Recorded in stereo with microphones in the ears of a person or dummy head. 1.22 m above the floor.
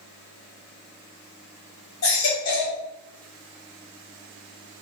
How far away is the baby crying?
About 1.7 m.